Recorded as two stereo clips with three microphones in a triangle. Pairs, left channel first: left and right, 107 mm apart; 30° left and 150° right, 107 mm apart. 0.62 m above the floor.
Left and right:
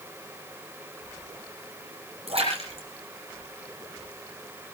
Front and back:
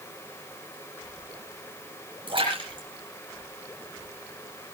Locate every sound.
2.3 s a splash: 110° right, 8 m